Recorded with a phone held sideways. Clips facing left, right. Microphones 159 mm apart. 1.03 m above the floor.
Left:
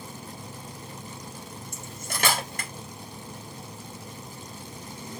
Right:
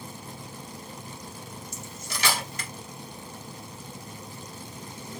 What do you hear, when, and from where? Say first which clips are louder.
1.7 s cutlery clinking: left 3 dB; 50° left (ahead or behind), 1.1 m